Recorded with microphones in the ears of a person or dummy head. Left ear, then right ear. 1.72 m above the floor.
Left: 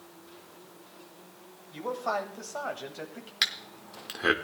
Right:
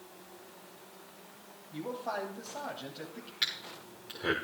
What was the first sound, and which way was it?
A man speaking, 70° left (ahead or behind).